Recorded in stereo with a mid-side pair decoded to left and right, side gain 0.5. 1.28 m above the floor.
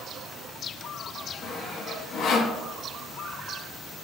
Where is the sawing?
60° left, 1.2 m.